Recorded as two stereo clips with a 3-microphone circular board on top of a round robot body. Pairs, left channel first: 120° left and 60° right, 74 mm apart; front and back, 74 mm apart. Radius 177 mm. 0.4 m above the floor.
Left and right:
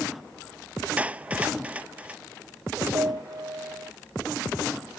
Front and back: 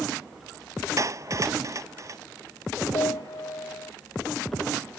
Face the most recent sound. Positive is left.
turn(degrees=-25)